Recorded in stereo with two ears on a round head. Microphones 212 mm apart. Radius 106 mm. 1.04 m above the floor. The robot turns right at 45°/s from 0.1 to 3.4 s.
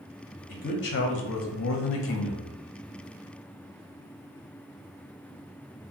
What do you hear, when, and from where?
0.5 s a man speaking: 40° left, 0.5 m; by 2.6 s 135° left, 0.5 m